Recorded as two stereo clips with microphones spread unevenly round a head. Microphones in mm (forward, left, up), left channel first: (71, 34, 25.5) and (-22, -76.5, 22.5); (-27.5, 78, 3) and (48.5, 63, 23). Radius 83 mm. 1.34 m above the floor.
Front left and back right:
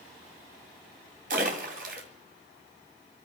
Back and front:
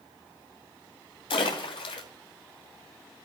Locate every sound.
1.3 s a splash: 165° right, 2 m